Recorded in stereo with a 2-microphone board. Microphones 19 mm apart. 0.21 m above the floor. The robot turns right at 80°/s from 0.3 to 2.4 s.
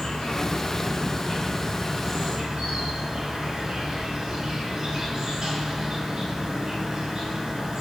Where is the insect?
50° left, 1.2 m; by 7.8 s 145° right, 1.2 m.